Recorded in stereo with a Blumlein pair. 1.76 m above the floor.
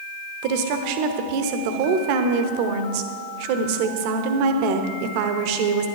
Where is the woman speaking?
45° right, 1.1 m.